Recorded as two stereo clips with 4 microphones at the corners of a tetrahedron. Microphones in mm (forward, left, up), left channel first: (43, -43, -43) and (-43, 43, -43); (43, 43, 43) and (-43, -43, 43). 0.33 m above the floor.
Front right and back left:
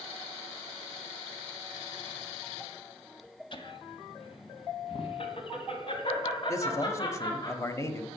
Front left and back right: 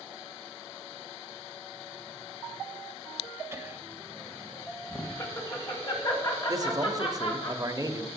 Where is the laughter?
75° right, 1.4 m; by 7.5 s 5° left, 3 m.